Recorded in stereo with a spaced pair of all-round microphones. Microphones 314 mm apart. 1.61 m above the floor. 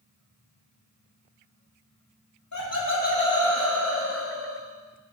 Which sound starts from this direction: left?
Laughter, at 2.5 s.